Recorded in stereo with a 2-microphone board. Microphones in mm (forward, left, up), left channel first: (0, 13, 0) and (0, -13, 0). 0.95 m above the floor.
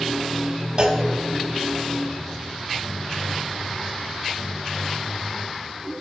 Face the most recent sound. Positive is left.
turn(degrees=-35)  # may be behind; listen again after turning